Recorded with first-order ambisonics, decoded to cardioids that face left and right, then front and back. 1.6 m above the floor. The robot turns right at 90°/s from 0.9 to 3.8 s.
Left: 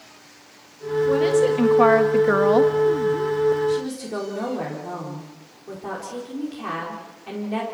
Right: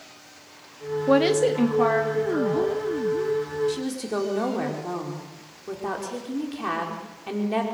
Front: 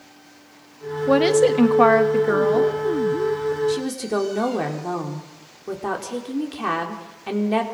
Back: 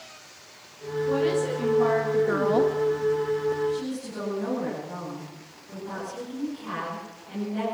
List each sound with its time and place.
1.1 s a woman speaking: 40° right, 1.9 m; by 2.7 s 110° left, 1.9 m
3.7 s a woman speaking: 20° right, 4.5 m; by 7.6 s 10° right, 4.5 m